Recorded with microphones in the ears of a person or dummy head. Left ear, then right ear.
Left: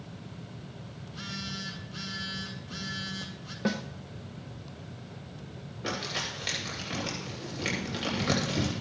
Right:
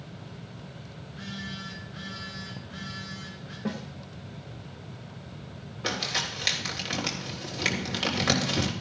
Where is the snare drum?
45° left (ahead or behind), 1.0 m.